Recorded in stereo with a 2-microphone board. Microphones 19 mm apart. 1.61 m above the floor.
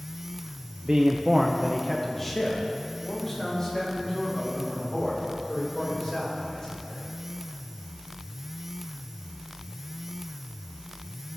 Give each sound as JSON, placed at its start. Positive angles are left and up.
{"t": 0.8, "sound": "a man speaking", "side_deg": -55, "distance_m": 0.7}